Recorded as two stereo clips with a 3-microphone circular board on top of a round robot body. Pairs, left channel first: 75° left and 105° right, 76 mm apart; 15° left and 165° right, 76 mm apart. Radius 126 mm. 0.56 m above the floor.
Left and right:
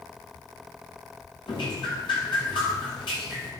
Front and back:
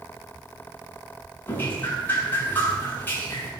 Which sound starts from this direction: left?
Dripping, at 1.5 s.